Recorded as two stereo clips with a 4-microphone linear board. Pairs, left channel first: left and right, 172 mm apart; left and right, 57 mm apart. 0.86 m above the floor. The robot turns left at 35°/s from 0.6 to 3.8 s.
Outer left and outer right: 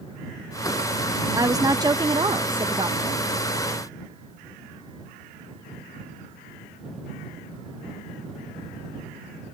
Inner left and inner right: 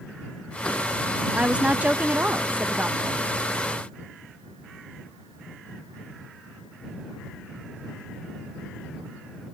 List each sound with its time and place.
1.3 s a woman speaking: 20° right (ahead or behind); by 3.3 s 25° right (ahead or behind)